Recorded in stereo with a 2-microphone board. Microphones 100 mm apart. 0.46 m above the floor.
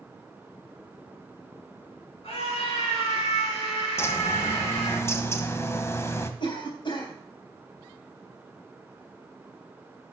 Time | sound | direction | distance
2.2 | a scream | 75° left (ahead or behind) | 4.5 m
4.0 | a bird | 25° left (ahead or behind) | 1.1 m
6.4 | a cough | 50° left (ahead or behind) | 3.5 m